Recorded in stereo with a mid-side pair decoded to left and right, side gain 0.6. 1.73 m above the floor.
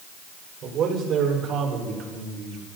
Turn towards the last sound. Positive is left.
turn(degrees=-60)